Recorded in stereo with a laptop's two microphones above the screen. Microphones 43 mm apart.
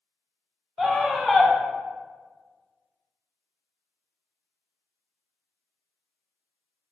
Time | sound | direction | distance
0.8 | a scream | 5° right (ahead or behind) | 0.7 m